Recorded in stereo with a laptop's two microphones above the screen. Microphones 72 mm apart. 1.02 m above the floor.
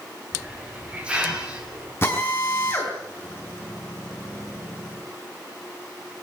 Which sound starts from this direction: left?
A drill, at 2.0 s.